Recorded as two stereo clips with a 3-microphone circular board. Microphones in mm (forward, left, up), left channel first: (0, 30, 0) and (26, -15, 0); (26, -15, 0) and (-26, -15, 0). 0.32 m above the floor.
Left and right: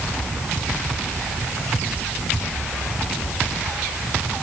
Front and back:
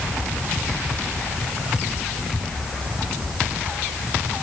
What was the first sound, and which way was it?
Only background noise.